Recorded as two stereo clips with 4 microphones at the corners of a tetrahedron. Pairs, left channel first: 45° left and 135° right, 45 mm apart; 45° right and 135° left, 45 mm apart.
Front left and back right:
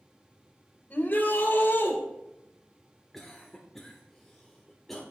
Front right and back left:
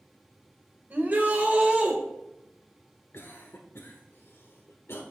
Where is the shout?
95° left, 2.5 m; by 2.0 s 80° left, 3 m.